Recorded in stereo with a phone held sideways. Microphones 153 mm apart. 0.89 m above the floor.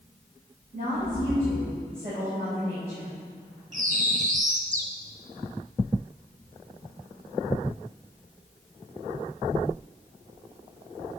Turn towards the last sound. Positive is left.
turn(degrees=-50)  # may be behind; listen again after turning